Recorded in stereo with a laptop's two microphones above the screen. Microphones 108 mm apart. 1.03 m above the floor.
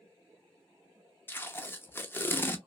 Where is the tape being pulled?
20° left (ahead or behind), 0.6 m.